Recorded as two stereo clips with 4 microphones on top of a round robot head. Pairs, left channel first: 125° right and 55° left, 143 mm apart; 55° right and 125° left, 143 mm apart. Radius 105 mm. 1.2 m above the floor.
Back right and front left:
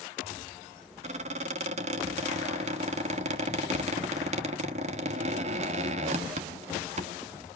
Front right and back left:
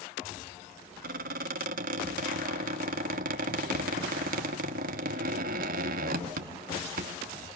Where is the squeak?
100° left, 0.9 m.